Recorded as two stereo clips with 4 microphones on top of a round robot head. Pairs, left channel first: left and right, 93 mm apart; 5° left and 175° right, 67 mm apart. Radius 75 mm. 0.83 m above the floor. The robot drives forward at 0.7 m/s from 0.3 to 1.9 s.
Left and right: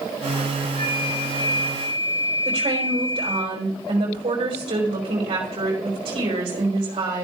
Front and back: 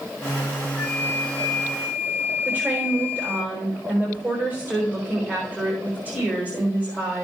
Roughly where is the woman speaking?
Behind right.